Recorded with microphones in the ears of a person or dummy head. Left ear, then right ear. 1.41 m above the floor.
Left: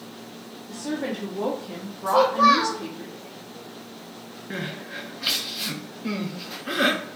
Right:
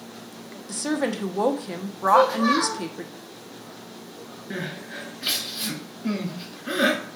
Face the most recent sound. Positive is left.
turn(degrees=0)  # may be behind; listen again after turning